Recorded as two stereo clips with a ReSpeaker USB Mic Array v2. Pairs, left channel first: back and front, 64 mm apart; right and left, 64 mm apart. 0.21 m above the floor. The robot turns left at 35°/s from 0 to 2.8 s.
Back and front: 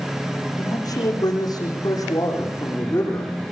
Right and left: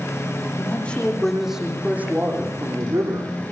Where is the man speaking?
150° right, 9.5 m; by 3.3 s 130° left, 9.5 m.